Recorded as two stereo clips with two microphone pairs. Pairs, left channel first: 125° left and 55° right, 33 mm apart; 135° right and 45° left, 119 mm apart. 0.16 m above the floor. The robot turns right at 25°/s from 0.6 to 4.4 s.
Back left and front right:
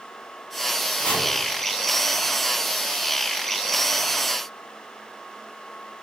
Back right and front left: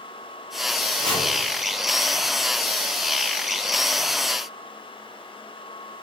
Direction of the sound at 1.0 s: 145° left.